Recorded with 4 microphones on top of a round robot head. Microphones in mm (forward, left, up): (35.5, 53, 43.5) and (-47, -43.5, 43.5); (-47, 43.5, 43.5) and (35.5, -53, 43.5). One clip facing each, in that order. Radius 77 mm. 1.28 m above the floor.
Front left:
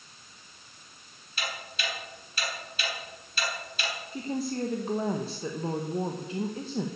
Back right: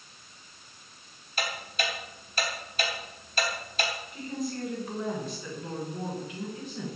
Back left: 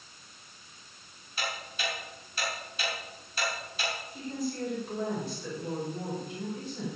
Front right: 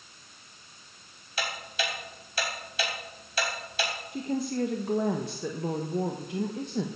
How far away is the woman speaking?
About 1.3 m.